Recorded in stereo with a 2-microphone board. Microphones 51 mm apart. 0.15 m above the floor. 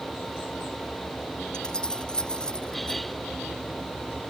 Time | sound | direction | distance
1.5 | keys jangling | 15° left (ahead or behind) | ?